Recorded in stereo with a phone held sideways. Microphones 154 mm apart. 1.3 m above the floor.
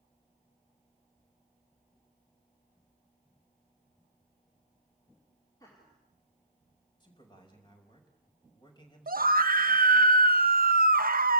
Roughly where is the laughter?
Left.